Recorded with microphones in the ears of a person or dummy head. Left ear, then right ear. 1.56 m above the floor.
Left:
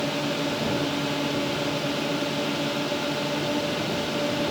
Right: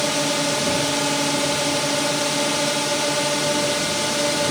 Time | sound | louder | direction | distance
0.0 | a drone | right 6 dB | 45° right (ahead or behind) | ?